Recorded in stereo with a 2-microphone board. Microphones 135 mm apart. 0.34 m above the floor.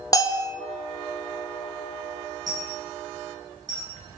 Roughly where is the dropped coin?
Right.